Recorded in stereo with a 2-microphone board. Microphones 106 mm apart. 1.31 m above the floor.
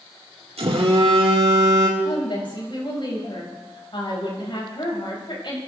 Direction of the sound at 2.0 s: 50° left (ahead or behind).